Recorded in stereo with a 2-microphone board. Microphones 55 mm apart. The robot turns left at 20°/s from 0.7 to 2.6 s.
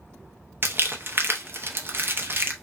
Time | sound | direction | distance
0.6 | crumpling | 40° right (ahead or behind) | 0.7 m